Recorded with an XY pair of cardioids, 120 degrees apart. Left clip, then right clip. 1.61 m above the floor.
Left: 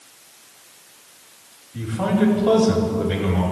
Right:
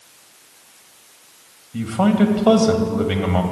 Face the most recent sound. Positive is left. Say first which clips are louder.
# right 3 dB
turn(degrees=-65)